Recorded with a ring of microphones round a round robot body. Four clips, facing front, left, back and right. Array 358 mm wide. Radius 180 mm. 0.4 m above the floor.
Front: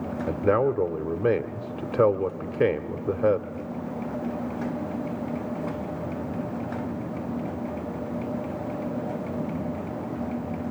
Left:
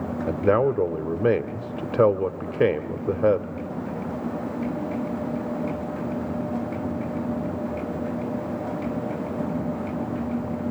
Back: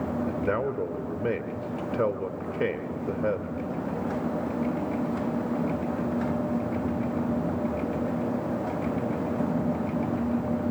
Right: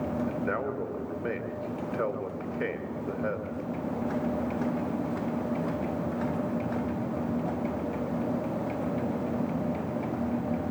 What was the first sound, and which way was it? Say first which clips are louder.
A man speaking: left 10 dB, front 9 dB; 65° left.